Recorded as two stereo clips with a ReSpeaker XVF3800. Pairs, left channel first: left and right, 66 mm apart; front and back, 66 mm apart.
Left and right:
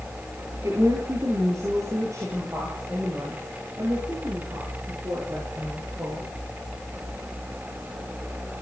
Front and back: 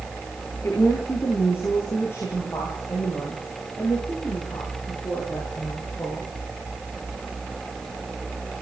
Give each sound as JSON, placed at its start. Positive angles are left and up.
{"t": 0.6, "sound": "a woman speaking", "azimuth_deg": -50, "distance_m": 7.5}